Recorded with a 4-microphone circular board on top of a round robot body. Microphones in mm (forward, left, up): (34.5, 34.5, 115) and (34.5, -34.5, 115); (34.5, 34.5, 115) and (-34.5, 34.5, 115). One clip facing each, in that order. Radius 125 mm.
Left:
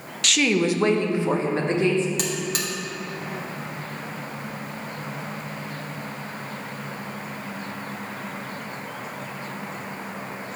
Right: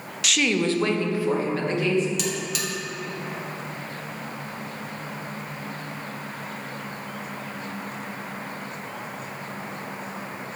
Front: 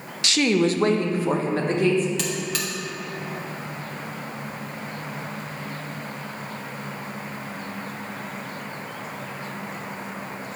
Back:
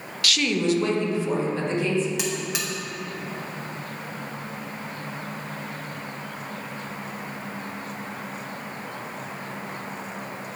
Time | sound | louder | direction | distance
0.2 | a woman speaking | left 2 dB, front 3 dB | 10° right | 0.6 m
2.2 | a buzzer | left 1 dB, front 1 dB | 115° left | 1.7 m